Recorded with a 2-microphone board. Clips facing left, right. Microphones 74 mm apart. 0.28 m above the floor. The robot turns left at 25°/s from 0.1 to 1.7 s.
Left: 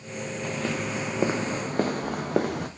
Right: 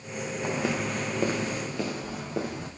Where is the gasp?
I don't hear a gasp.